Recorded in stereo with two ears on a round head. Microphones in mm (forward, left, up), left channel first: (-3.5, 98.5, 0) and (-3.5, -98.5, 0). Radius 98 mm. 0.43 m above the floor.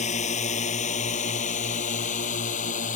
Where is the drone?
35° left (ahead or behind).